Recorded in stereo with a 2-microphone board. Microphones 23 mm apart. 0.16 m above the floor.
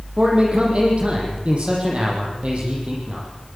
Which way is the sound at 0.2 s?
50° right (ahead or behind).